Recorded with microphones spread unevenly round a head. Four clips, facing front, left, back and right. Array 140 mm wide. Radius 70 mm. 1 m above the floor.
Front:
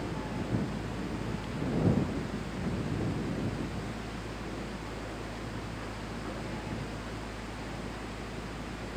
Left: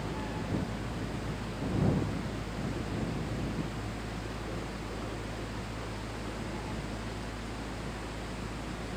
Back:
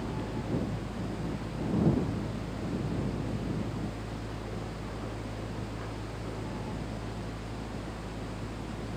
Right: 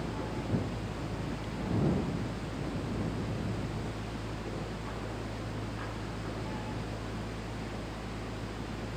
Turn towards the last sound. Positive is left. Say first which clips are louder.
# even, even
turn(degrees=-150)